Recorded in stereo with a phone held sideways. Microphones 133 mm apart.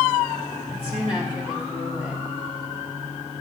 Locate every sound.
0.7 s a woman speaking: 45° left (ahead or behind), 5 m